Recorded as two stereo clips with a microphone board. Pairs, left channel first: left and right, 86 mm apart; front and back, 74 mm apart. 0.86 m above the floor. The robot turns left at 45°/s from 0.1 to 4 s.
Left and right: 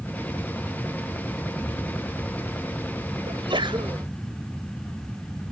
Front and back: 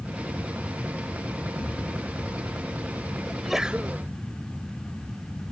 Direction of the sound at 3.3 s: 85° right.